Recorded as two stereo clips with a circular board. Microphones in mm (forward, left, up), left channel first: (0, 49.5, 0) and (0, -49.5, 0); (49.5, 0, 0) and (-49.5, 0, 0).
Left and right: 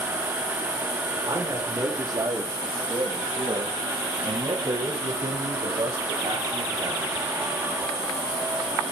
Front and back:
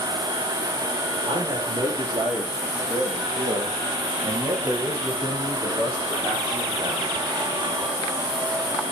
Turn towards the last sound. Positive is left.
turn(degrees=-100)